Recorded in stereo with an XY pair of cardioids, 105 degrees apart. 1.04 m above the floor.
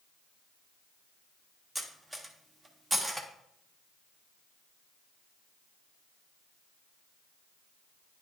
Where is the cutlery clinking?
15° right, 1.3 m.